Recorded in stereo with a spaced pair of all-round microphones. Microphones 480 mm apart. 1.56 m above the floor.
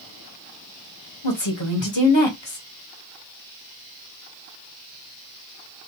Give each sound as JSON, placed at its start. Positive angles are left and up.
{"t": 1.2, "sound": "a woman speaking", "side_deg": 65, "distance_m": 1.3}